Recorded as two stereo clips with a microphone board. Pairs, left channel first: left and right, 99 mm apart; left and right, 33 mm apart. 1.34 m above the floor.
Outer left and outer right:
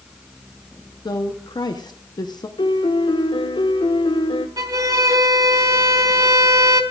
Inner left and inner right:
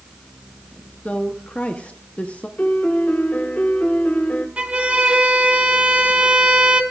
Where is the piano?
60° left (ahead or behind), 1.5 m.